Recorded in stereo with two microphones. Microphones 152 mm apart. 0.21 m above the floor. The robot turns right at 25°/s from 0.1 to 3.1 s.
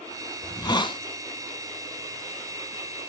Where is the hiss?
25° left (ahead or behind), 0.9 m; by 1.0 s 35° left (ahead or behind), 0.9 m.